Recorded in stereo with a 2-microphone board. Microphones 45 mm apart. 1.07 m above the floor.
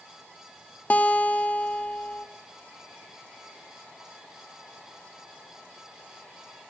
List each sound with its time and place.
0.9 s a guitar: 35° left (ahead or behind), 0.6 m